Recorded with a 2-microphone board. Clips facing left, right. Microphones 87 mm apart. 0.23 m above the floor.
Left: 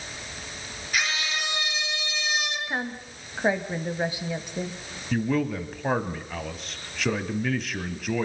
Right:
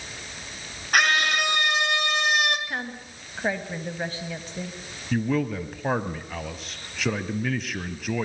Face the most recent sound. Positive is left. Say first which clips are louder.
# even
turn(degrees=0)  # may be behind; listen again after turning